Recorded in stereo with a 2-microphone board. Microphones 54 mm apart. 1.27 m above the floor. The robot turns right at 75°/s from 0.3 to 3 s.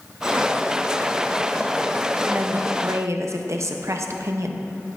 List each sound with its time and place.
2.3 s a woman speaking: 150° right, 0.7 m; by 4.7 s 95° right, 0.7 m